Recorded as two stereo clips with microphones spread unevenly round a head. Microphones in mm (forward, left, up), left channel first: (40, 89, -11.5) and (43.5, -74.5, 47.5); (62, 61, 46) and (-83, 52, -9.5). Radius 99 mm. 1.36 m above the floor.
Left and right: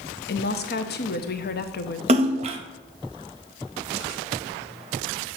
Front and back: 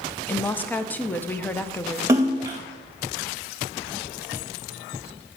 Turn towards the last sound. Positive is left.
turn(degrees=-85)